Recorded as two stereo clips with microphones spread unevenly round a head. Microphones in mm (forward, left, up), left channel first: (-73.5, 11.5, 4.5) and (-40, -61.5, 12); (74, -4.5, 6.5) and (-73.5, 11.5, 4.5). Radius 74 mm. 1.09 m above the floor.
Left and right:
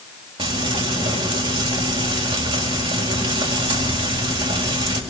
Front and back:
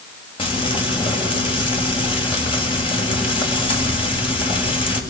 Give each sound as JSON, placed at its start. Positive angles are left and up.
{"t": 0.4, "sound": "frying", "azimuth_deg": -65, "distance_m": 6.5}